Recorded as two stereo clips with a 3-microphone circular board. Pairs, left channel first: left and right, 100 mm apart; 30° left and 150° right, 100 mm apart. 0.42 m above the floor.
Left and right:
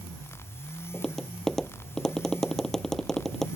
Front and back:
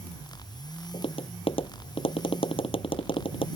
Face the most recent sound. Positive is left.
turn(degrees=5)